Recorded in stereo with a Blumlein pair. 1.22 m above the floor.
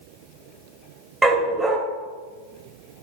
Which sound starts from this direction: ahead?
A dog barking, at 1.2 s.